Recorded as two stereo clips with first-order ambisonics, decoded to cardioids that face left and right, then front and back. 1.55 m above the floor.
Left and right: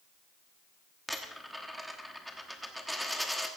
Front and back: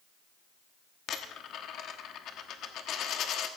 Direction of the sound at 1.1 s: Straight ahead.